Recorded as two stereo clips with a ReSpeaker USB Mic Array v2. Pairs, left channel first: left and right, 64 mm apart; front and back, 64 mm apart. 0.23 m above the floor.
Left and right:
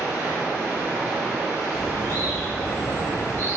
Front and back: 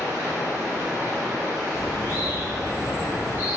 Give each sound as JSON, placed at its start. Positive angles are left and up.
{"t": 0.0, "sound": "running water", "azimuth_deg": -35, "distance_m": 0.9}
{"t": 1.7, "sound": "a bird", "azimuth_deg": 40, "distance_m": 1.0}